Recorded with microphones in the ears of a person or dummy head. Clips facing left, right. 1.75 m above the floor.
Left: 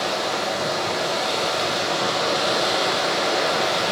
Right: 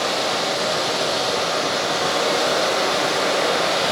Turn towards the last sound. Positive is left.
turn(degrees=-50)  # may be behind; listen again after turning